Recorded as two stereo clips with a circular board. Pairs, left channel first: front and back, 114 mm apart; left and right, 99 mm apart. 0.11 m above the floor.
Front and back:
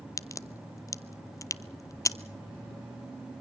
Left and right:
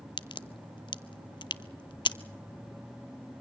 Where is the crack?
60° left, 0.5 m.